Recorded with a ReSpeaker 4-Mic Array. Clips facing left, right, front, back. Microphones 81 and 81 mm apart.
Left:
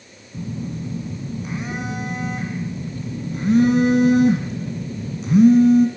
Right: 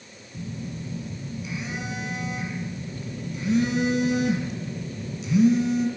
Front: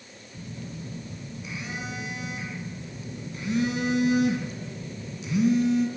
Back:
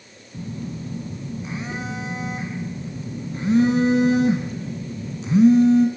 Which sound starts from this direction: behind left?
A phone buzzing, at 0.3 s.